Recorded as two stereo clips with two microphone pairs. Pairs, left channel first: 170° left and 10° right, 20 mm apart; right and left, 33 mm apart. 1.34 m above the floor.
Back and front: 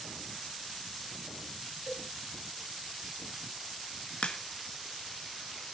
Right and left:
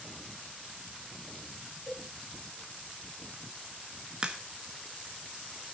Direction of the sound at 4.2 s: 155° left.